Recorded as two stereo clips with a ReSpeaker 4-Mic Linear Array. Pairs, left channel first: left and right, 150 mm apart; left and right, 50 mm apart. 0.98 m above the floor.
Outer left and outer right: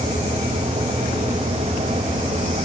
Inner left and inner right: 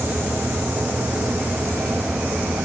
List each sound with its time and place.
Only background noise.